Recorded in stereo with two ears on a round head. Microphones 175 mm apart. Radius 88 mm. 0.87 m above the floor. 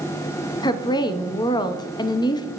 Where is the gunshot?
No gunshot in this recording.